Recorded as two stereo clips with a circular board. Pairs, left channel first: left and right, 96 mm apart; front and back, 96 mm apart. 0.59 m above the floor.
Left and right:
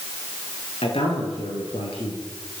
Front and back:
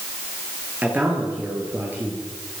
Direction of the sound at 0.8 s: 110° left.